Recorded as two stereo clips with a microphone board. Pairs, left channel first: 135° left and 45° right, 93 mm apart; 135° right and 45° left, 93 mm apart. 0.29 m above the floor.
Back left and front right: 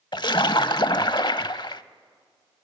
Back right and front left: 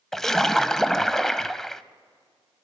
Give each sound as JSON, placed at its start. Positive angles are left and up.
{"t": 0.1, "sound": "a splash", "azimuth_deg": 140, "distance_m": 0.6}